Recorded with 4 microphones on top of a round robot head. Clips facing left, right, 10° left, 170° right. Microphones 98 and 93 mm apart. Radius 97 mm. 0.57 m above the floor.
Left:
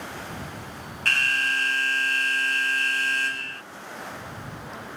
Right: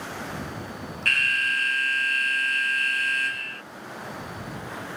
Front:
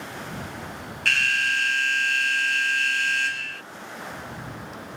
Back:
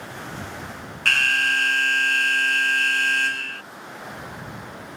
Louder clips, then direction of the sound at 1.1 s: Left 1 dB, back 3 dB; 145° left.